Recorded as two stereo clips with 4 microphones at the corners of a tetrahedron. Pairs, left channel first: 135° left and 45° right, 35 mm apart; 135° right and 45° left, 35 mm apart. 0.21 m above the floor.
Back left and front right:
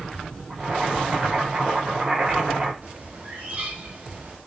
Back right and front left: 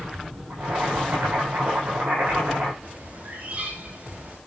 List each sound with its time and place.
0.5 s boiling: 25° left, 9.5 m
2.8 s a bird: straight ahead, 7.5 m